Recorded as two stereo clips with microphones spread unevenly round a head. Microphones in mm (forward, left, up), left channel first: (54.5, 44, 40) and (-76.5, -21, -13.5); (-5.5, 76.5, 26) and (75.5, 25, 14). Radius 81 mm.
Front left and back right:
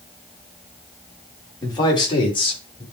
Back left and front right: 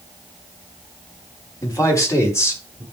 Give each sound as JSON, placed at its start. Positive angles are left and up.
{"t": 1.6, "sound": "a man speaking", "azimuth_deg": 95, "distance_m": 3.5}